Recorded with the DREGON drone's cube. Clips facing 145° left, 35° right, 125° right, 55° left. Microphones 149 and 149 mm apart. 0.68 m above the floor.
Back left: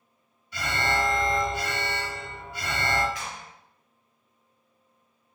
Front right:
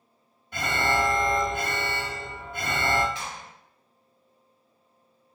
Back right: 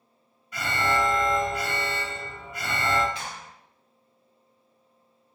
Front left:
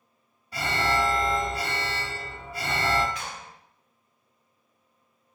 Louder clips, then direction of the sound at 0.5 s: Front right 2 dB, even; straight ahead.